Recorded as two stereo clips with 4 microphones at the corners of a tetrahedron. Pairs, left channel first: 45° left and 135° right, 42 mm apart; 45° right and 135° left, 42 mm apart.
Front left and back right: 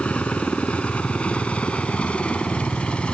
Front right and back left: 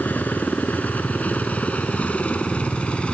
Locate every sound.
0.0 s a helicopter: 5° right; by 3.1 s straight ahead